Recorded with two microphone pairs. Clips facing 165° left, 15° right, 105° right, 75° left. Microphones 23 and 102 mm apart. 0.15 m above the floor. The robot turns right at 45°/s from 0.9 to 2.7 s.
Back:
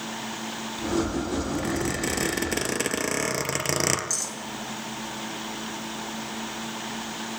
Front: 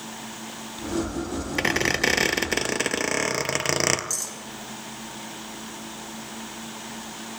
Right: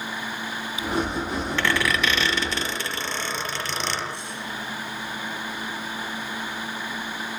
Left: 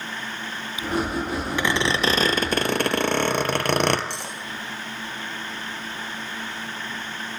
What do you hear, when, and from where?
1.6 s a squeak: 5° left, 2 m; by 4.0 s 55° left, 2 m
4.1 s cutlery clinking: 80° left, 4.5 m